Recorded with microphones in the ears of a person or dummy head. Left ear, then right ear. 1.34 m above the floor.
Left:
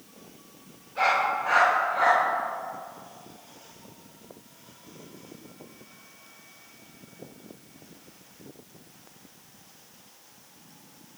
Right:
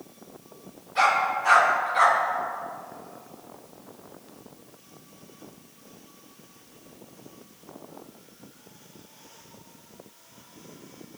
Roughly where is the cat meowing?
No cat meowing in this recording.